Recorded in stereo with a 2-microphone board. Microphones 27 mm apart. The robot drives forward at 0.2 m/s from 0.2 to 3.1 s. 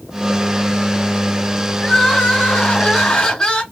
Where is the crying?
25° left (ahead or behind), 2 m.